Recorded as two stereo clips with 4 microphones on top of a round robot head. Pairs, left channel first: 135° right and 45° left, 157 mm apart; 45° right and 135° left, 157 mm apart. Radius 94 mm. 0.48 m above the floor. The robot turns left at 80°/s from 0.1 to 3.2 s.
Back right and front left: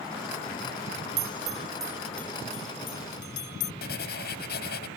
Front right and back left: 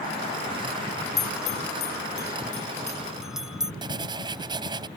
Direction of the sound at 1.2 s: 25° left.